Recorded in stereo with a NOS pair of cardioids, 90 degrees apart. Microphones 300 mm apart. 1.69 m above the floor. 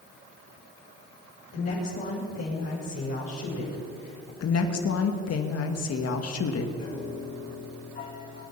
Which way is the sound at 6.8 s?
35° left.